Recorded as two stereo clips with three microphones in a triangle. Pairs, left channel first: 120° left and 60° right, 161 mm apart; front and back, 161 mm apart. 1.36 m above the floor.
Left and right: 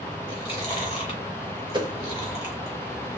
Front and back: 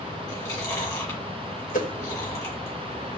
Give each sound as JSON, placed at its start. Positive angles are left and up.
{"t": 0.3, "sound": "chewing", "azimuth_deg": 65, "distance_m": 2.5}
{"t": 1.7, "sound": "a whoosh", "azimuth_deg": -5, "distance_m": 1.2}